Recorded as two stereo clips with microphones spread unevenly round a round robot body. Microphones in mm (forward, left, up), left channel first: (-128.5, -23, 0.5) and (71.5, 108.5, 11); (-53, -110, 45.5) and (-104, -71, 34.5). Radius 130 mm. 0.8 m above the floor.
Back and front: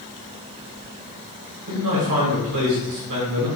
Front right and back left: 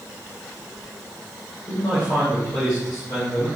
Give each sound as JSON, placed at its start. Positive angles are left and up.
{"t": 1.7, "sound": "a man speaking", "azimuth_deg": 30, "distance_m": 3.0}